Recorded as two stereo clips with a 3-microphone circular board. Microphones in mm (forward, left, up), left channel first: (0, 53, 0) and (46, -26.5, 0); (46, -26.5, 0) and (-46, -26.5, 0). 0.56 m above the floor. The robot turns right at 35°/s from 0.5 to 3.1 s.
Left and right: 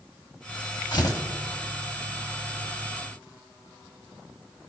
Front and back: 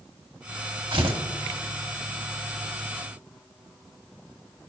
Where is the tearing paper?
160° left, 1.5 m; by 1.2 s 170° left, 1.5 m.